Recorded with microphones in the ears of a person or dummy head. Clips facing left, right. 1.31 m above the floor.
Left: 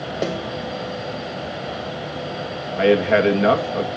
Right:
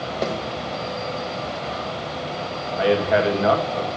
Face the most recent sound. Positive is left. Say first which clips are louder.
# left 3 dB
turn(degrees=35)  # may be behind; listen again after turning